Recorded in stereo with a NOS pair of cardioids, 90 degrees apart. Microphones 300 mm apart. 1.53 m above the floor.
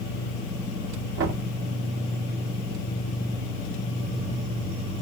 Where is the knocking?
50° right, 2.5 m.